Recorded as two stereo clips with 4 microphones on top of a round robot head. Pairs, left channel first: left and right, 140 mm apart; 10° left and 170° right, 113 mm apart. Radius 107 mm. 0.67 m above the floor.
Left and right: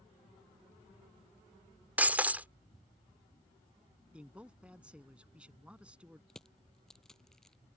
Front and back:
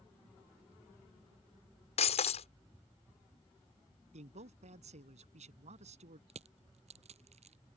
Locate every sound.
2.0 s breaking glass: 10° right
4.1 s a man speaking: 170° right
6.3 s crushing: 175° left